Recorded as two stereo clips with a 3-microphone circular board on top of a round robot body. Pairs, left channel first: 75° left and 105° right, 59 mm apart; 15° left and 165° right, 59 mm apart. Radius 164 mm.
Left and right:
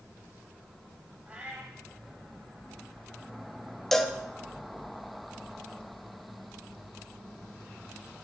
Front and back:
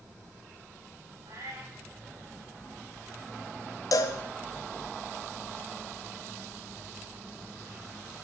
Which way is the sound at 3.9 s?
10° right.